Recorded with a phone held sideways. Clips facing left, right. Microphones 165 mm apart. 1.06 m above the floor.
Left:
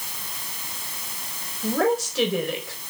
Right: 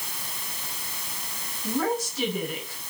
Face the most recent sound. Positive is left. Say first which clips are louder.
# left 5 dB
turn(degrees=85)